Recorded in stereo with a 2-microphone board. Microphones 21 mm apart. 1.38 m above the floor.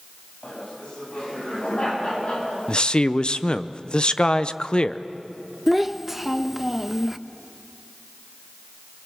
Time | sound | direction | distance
0.4 | laughter | 40° left (ahead or behind) | 8 m
2.7 | a man speaking | 45° left (ahead or behind) | 0.7 m
5.7 | a child speaking | 10° right (ahead or behind) | 0.8 m